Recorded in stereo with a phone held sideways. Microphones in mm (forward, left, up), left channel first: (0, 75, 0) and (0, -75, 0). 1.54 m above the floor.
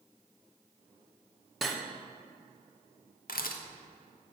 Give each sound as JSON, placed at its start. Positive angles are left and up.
{"t": 1.6, "sound": "cutlery clinking", "side_deg": 0, "distance_m": 0.7}
{"t": 3.3, "sound": "a camera shutter", "side_deg": 75, "distance_m": 0.6}